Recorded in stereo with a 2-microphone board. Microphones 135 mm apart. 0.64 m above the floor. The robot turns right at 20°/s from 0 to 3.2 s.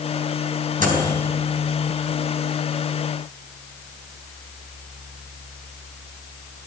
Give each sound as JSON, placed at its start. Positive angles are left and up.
{"t": 0.8, "sound": "a microwave", "side_deg": -80, "distance_m": 3.5}